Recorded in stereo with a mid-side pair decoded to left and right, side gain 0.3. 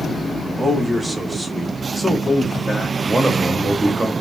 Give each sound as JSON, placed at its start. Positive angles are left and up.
{"t": 0.6, "sound": "a man speaking", "azimuth_deg": -35, "distance_m": 1.4}
{"t": 3.0, "sound": "a man speaking", "azimuth_deg": -30, "distance_m": 1.0}